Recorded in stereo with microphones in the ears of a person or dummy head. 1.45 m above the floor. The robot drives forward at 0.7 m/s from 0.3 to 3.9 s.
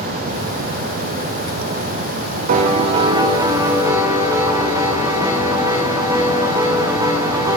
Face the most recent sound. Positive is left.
turn(degrees=-15)  # may be behind; listen again after turning